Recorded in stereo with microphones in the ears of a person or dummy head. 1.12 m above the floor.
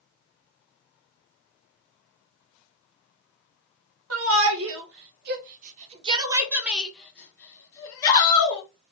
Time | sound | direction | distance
4.1 | a shout | 65° right (ahead or behind) | 1.5 m